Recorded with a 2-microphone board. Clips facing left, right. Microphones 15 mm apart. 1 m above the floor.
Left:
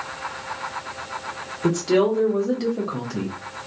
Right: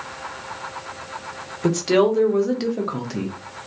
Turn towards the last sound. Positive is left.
turn(degrees=-20)  # may be behind; listen again after turning